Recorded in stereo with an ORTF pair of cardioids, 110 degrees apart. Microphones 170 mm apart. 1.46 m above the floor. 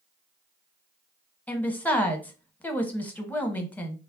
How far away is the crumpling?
No crumpling in this recording.